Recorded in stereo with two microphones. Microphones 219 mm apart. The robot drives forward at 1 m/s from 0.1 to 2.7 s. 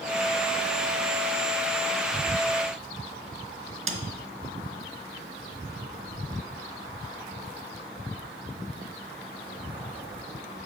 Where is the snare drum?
70° right (ahead or behind), 1.0 m.